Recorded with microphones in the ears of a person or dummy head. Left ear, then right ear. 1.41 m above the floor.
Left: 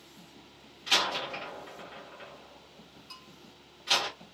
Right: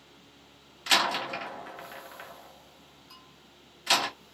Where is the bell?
15° left (ahead or behind), 2 m.